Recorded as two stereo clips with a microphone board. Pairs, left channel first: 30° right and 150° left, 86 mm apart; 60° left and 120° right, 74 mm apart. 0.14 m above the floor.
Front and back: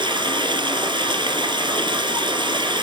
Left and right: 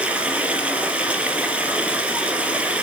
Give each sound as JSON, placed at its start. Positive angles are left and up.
{"t": 0.0, "sound": "running water", "azimuth_deg": 170, "distance_m": 2.5}